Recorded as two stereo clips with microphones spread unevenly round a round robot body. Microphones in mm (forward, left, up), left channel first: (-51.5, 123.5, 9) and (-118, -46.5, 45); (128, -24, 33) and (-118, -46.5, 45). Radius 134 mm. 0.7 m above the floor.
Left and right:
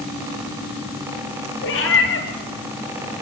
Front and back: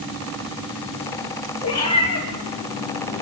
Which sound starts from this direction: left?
A cat meowing, at 1.6 s.